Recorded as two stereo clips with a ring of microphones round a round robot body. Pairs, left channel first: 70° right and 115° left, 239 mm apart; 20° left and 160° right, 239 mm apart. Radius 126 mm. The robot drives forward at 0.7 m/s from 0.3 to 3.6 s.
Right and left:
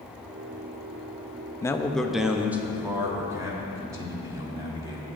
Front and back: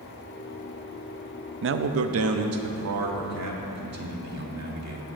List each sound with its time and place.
1.6 s a man speaking: 140° right, 0.6 m; by 5.1 s 170° right, 1.8 m